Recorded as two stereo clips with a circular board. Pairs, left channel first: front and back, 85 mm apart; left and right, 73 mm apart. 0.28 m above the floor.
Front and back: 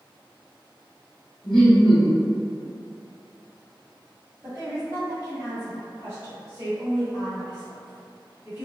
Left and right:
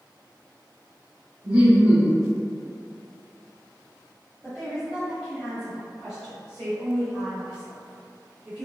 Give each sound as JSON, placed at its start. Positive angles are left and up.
{"t": 1.4, "sound": "laughter", "azimuth_deg": -80, "distance_m": 1.4}
{"t": 4.4, "sound": "a woman speaking", "azimuth_deg": -160, "distance_m": 1.4}